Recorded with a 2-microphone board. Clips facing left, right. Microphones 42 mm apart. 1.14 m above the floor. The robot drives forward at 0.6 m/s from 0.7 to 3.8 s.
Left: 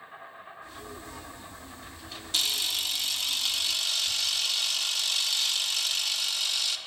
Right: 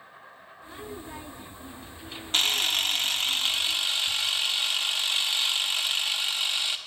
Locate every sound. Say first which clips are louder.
0.0 s an insect: left 3 dB; 60° left (ahead or behind), 4 m; by 6.9 s 45° left (ahead or behind), 5 m
2.3 s a camera shutter: right 5 dB; 45° right (ahead or behind), 0.6 m; by 6.8 s 30° right (ahead or behind), 0.9 m